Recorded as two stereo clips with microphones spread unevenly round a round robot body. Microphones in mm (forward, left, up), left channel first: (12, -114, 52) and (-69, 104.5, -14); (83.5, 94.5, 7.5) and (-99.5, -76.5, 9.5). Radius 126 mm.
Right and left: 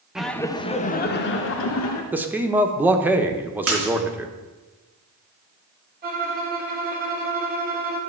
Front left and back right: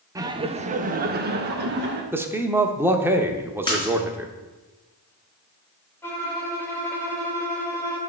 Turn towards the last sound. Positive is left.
turn(degrees=120)